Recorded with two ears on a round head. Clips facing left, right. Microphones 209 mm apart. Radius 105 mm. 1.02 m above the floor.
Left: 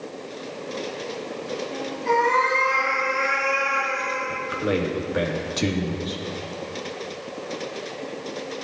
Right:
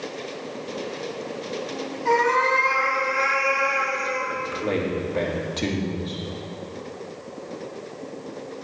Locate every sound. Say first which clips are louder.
2.0 s a cat meowing: right 1 dB; 70° right (ahead or behind), 4.5 m; by 4.2 s 50° right (ahead or behind), 3.5 m
4.3 s a man speaking: left 3 dB; 15° left (ahead or behind), 1.7 m